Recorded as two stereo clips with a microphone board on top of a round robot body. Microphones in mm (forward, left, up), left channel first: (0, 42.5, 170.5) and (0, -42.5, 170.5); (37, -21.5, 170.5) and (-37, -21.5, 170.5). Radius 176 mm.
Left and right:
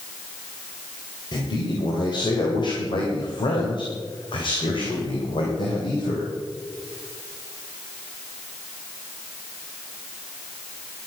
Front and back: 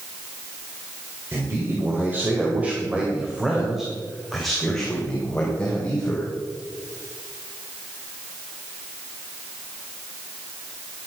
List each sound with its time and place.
1.3 s a man speaking: 125° left, 3 m; by 6.2 s 70° left, 3 m